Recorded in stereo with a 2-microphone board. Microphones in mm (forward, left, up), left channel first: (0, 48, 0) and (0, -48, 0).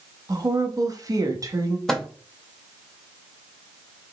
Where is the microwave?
5° left (ahead or behind), 0.6 m.